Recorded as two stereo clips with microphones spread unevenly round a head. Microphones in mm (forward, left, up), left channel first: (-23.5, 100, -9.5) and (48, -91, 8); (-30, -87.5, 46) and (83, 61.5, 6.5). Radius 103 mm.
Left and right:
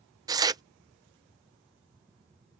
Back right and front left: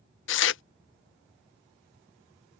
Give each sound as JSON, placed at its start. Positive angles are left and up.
{"t": 0.3, "sound": "tearing paper", "azimuth_deg": -140}